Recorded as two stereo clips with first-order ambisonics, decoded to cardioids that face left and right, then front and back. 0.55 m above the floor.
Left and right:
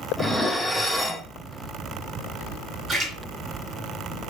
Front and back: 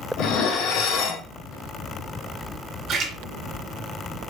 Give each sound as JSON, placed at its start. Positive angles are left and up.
{"t": 0.2, "sound": "dishes clattering", "azimuth_deg": -5, "distance_m": 0.7}
{"t": 2.9, "sound": "a splash", "azimuth_deg": -150, "distance_m": 1.5}